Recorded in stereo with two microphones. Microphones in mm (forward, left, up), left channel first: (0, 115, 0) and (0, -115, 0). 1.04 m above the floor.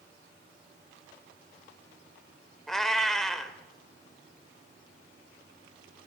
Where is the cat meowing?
Centre (ahead or behind), 0.9 m.